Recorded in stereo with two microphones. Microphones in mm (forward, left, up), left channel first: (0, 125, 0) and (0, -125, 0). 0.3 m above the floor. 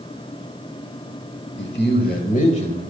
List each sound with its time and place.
1.6 s a man speaking: 40° left (ahead or behind), 1.3 m; by 2.8 s 20° left (ahead or behind), 1.2 m